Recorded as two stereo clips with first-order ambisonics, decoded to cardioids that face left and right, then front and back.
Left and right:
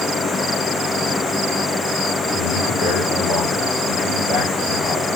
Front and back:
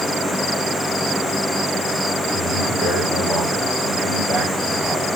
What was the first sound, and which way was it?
A man speaking, 95° left.